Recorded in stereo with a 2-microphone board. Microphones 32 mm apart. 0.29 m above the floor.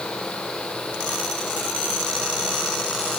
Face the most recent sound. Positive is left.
No sound to turn to.